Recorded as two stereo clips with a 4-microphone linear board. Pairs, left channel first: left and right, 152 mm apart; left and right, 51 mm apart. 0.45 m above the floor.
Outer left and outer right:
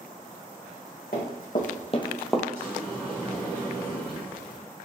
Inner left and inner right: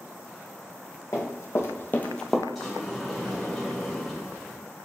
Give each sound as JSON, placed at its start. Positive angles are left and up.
{"t": 1.1, "sound": "running footsteps", "side_deg": 75, "distance_m": 1.8}
{"t": 2.5, "sound": "a sliding door", "side_deg": 5, "distance_m": 1.7}